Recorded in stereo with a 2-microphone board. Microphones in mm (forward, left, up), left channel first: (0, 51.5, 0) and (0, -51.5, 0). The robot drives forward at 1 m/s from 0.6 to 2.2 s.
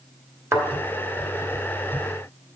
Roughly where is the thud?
Right.